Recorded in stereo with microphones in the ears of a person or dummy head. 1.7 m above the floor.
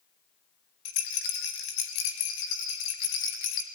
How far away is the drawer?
I don't hear a drawer.